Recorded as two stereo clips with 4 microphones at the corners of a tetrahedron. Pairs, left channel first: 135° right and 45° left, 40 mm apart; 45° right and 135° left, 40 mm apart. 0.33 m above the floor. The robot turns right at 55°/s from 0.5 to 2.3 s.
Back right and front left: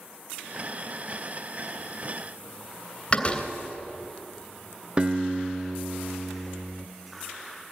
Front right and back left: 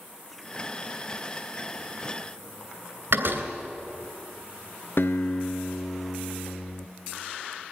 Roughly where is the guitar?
Ahead.